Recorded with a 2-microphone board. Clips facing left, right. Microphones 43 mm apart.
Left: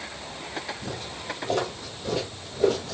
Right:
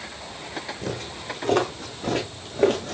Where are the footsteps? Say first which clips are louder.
Right 3 dB; 80° right, 4 m; by 2.9 s 60° right (ahead or behind), 3.5 m.